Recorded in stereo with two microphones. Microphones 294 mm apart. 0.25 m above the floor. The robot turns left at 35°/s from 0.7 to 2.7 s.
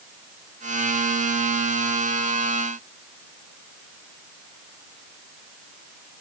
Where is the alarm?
No alarm in this recording.